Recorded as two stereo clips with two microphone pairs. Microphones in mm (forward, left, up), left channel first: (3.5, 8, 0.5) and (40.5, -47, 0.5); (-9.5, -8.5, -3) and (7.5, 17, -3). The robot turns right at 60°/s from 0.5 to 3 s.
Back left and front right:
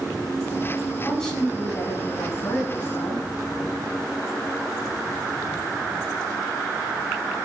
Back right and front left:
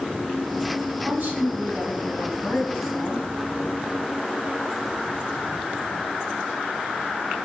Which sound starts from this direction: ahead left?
A woman speaking, at 1.0 s.